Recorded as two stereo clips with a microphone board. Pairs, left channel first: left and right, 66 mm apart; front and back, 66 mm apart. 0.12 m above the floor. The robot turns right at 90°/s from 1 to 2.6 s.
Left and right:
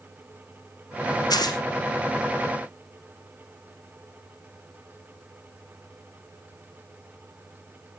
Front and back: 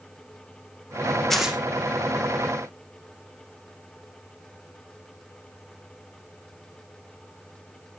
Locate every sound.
1.3 s tearing paper: 85° left, 2.5 m; by 1.6 s 110° left, 2.5 m